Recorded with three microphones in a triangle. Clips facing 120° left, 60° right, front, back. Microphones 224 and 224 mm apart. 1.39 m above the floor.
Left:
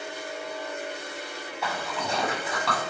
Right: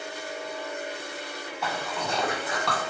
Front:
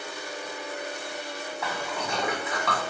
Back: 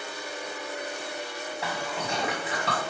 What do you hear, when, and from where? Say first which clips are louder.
1.6 s a splash: even, even; 150° right, 1.4 m